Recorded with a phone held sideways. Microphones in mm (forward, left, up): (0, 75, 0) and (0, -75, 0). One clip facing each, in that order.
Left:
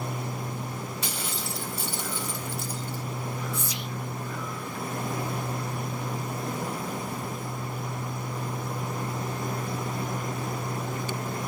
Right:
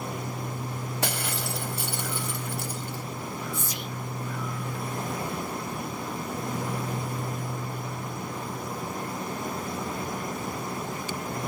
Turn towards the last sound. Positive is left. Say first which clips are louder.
# even
turn(degrees=-50)  # may be behind; listen again after turning